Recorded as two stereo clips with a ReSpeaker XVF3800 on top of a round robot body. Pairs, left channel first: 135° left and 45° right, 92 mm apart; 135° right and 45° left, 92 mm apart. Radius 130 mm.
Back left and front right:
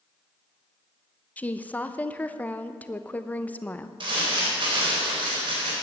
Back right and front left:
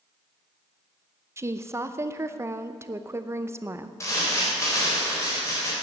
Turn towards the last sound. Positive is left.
turn(degrees=-75)